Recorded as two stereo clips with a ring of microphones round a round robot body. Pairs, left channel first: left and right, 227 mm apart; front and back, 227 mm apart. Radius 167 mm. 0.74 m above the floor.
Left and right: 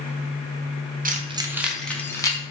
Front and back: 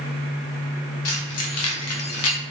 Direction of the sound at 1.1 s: 35° right.